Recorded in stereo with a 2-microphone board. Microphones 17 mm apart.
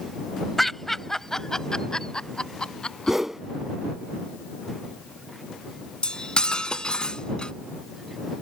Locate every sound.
0.6 s laughter: 15° left (ahead or behind); by 3.2 s 60° left (ahead or behind)
3.1 s a whoosh: 15° right (ahead or behind)
6.0 s cutlery clinking: 60° left (ahead or behind)